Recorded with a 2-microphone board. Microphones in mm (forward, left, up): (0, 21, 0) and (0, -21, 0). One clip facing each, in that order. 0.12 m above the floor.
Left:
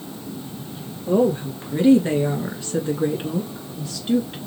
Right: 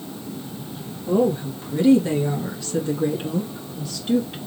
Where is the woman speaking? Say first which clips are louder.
Left 1 dB; 40° left (ahead or behind), 2 m; by 4.4 s 5° left (ahead or behind), 1.8 m.